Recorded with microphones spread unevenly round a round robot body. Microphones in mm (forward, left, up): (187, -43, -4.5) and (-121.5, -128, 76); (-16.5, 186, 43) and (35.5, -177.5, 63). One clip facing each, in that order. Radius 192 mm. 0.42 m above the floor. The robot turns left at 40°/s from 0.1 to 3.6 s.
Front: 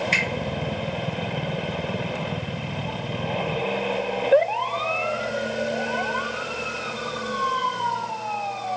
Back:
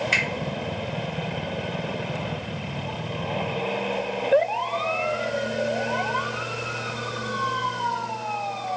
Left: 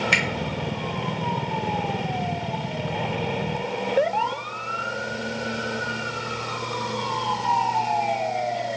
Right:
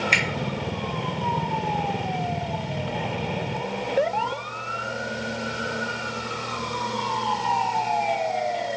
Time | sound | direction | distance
0.1 | a finger snap | 110° left | 0.6 m